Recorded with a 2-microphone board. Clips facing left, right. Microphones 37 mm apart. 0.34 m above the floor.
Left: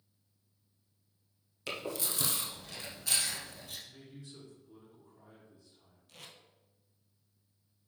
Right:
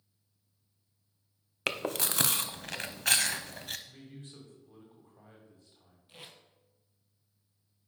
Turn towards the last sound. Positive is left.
turn(degrees=-20)  # may be behind; listen again after turning